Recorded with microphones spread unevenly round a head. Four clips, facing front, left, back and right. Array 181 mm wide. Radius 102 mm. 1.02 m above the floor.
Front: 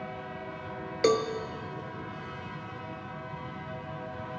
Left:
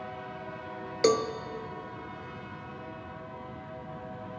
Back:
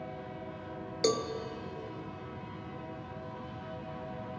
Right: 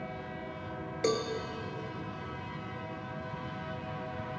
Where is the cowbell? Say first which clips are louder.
Left 6 dB, front 5 dB; 40° left, 0.6 m.